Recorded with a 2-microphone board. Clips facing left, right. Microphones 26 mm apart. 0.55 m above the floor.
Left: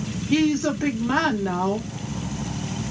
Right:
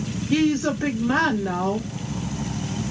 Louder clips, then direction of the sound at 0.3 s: Even; 25° left (ahead or behind).